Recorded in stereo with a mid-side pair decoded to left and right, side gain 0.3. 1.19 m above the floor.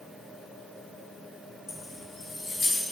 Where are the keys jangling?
60° left, 0.8 m; by 2.8 s 65° left, 1.7 m.